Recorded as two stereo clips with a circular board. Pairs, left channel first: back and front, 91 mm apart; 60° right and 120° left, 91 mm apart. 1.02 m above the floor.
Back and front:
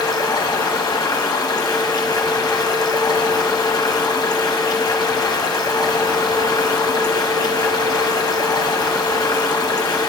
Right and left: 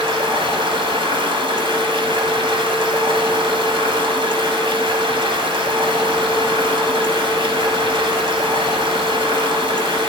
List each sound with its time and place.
0.0 s running water: 140° left, 2 m